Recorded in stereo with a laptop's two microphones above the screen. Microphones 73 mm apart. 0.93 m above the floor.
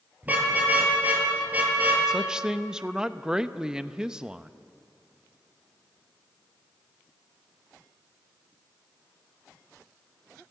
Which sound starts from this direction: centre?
A woman speaking, at 2.1 s.